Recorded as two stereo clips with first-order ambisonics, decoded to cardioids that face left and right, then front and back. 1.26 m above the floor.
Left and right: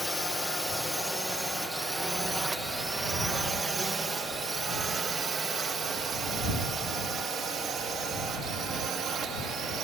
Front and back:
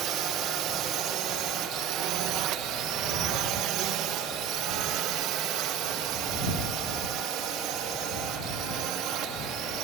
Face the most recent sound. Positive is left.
turn(degrees=-145)